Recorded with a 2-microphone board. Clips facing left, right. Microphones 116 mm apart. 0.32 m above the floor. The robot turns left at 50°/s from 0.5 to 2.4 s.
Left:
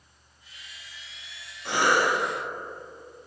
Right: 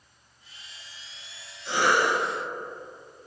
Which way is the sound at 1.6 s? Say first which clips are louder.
Even; 65° left (ahead or behind).